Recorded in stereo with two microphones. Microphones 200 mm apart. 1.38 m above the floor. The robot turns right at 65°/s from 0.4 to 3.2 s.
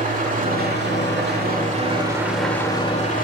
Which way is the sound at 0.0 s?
130° right.